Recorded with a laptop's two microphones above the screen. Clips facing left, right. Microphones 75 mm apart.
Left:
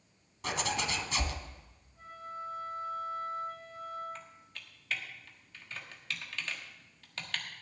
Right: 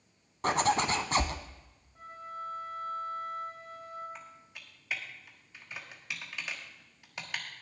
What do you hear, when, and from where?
0.4 s a zipper: 45° right (ahead or behind), 1.0 m
1.9 s a flute: 75° right (ahead or behind), 5.5 m
4.2 s typing on a keyboard: 15° right (ahead or behind), 1.3 m